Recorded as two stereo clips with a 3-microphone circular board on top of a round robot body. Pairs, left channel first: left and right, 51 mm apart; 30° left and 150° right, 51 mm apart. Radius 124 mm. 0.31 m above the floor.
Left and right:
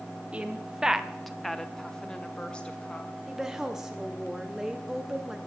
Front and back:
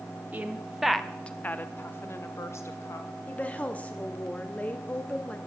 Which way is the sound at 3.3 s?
15° right.